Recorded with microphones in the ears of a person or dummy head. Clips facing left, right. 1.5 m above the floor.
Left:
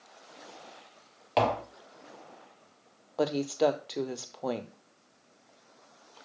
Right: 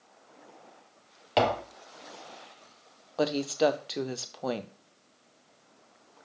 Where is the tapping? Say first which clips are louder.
Right 1 dB; 5° right (ahead or behind), 0.9 m.